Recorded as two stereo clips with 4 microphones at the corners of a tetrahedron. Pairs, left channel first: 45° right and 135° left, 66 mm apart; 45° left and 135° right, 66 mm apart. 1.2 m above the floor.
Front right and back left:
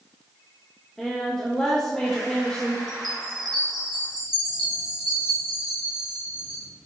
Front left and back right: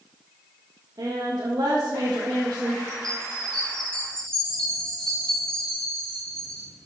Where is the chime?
125° left, 3 m.